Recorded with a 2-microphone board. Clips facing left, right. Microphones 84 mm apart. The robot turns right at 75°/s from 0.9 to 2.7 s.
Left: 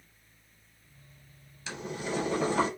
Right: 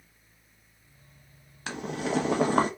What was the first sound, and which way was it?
Boiling, 120° right.